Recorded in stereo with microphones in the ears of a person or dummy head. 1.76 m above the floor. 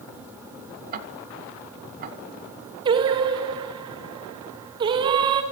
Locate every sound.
0.9 s ticking: 50° right (ahead or behind), 2.0 m
2.9 s singing: 25° right (ahead or behind), 1.3 m